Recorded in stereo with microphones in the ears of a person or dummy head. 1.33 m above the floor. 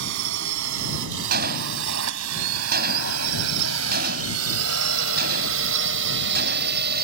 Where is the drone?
65° right (ahead or behind); by 7.0 s 55° right (ahead or behind).